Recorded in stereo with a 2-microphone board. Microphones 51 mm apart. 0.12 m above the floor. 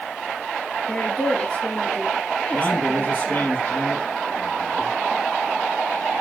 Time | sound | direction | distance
0.9 | a woman speaking | 30° left (ahead or behind) | 2 m
2.5 | a man speaking | 40° left (ahead or behind) | 3 m